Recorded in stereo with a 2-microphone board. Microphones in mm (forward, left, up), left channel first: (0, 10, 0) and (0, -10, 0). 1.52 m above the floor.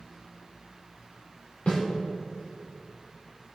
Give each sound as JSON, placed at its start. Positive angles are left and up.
{"t": 1.7, "sound": "a snare drum", "side_deg": 75, "distance_m": 4.0}